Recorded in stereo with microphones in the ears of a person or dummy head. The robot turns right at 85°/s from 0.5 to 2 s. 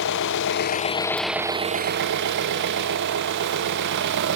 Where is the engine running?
115° left, 0.9 m; by 4.4 s 120° right, 0.9 m.